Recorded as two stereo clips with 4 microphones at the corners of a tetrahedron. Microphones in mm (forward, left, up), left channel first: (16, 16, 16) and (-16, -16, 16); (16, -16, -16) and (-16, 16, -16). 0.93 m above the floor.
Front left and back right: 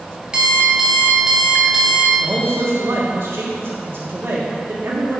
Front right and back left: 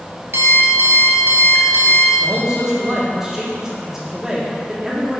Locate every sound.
0.3 s an alarm clock: 155° left, 1.4 m
2.2 s a man speaking: 150° right, 1.9 m